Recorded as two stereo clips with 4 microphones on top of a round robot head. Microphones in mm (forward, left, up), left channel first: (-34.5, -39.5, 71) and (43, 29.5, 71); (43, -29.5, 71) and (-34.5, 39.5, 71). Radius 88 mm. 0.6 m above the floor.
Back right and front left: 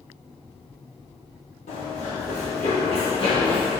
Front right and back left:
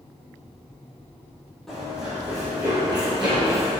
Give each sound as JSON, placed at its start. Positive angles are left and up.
{"t": 1.7, "sound": "running footsteps", "azimuth_deg": -130, "distance_m": 1.2}